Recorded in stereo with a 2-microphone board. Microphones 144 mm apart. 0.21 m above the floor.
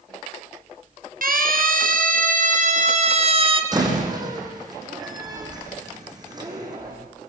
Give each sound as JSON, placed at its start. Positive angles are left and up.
{"t": 1.2, "sound": "a siren", "side_deg": -75, "distance_m": 5.0}
{"t": 3.7, "sound": "a door slam", "side_deg": -25, "distance_m": 7.5}